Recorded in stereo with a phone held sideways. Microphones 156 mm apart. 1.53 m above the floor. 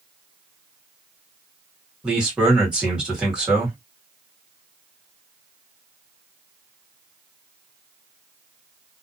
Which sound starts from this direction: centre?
A man speaking, at 2.0 s.